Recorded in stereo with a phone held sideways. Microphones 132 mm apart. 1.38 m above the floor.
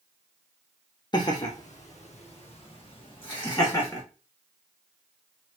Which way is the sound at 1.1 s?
35° left (ahead or behind).